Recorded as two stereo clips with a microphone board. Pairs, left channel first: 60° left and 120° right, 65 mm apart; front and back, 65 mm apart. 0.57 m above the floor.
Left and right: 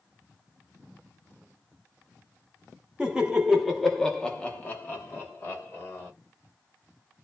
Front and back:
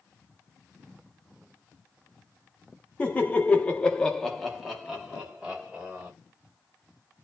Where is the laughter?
55° right, 0.9 m; by 6.1 s 105° left, 1.3 m.